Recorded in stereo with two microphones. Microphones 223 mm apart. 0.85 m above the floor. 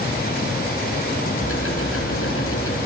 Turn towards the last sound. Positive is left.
turn(degrees=70)  # may be behind; listen again after turning